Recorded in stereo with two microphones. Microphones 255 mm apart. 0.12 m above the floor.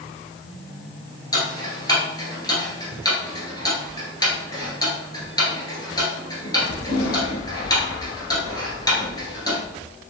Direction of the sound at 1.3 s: 15° left (ahead or behind).